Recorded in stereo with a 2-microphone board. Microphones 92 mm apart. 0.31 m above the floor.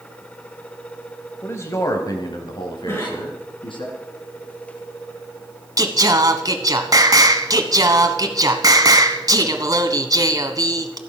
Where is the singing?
40° right (ahead or behind), 1.1 m.